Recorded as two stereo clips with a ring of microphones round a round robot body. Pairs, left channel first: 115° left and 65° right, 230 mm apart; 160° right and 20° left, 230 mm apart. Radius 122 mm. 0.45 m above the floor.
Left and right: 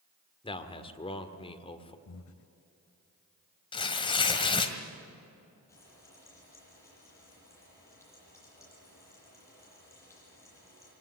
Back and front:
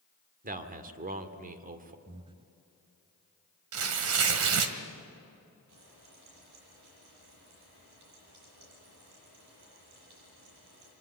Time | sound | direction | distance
0.4 | a man speaking | 55° left | 1.6 m
2.0 | breathing | 95° left | 0.7 m
3.7 | tearing paper | 45° left | 1.8 m
5.7 | frying | 35° left | 9 m